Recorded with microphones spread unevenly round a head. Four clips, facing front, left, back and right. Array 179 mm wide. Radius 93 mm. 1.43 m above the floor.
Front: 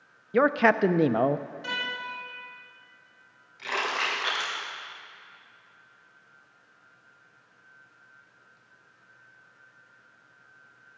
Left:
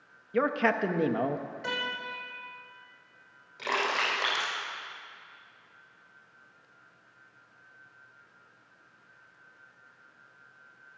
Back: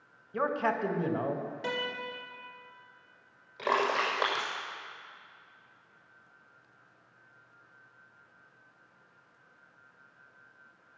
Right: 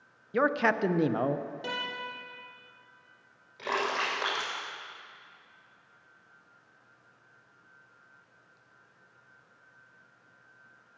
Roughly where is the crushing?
Behind.